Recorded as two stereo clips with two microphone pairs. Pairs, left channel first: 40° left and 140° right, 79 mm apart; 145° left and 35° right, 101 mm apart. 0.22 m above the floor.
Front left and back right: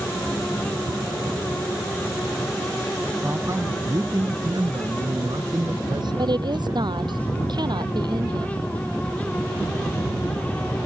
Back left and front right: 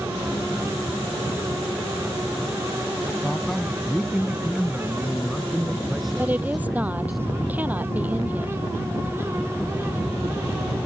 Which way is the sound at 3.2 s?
130° right.